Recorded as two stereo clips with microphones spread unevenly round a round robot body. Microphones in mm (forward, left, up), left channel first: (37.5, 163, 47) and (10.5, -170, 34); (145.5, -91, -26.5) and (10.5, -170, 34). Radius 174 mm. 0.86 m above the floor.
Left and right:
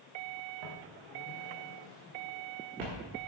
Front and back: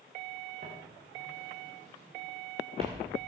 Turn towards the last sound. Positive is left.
turn(degrees=-95)